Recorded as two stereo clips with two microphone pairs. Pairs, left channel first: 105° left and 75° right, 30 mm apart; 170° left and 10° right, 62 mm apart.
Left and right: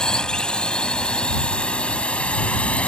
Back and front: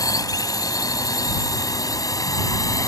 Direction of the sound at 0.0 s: 170° left.